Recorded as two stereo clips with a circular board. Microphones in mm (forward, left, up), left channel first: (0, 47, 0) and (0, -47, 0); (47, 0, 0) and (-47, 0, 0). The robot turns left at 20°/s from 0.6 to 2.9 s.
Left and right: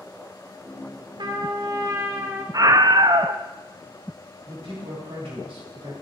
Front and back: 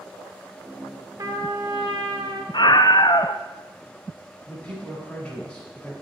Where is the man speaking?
80° right, 3.5 m.